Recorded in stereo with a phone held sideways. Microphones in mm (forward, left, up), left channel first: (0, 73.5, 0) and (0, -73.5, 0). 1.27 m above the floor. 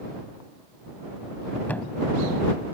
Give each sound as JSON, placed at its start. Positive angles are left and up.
{"t": 1.7, "sound": "a thud", "side_deg": 10}